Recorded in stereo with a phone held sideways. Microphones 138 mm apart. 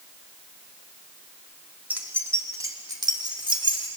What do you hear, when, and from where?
1.9 s keys jangling: 15° right (ahead or behind), 2.0 m; by 3.9 s 40° right (ahead or behind), 3 m